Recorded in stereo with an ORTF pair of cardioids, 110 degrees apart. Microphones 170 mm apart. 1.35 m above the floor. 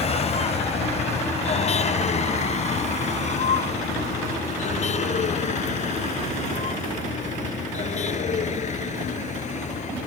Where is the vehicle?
40° left; by 10.1 s 45° left.